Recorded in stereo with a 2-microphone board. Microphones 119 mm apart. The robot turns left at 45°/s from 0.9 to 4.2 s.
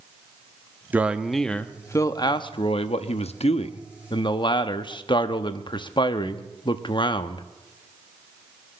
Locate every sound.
0.9 s a man speaking: 165° right, 0.8 m; by 7.4 s 50° left, 0.8 m